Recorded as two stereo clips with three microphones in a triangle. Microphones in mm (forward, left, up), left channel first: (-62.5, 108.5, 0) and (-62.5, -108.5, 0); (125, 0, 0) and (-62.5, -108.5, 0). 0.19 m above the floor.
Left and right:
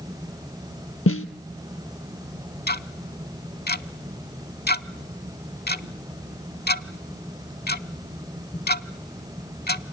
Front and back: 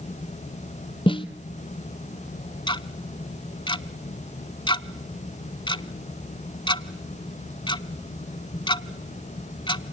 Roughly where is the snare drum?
Left.